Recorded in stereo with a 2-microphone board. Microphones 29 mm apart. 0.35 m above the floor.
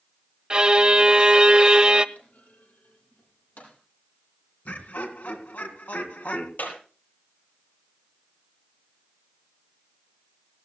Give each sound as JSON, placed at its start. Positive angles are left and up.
{"t": 0.5, "sound": "a violin", "side_deg": -30, "distance_m": 0.7}
{"t": 2.1, "sound": "a clunk", "side_deg": 75, "distance_m": 6.5}
{"t": 4.7, "sound": "laughter", "side_deg": 70, "distance_m": 3.5}
{"t": 6.6, "sound": "a clap", "side_deg": 85, "distance_m": 7.0}